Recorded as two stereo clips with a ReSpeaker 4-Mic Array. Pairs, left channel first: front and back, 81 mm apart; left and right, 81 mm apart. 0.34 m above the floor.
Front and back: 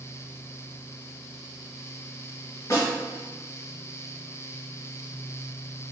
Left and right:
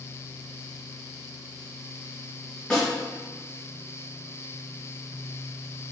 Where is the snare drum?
25° left, 1.6 m.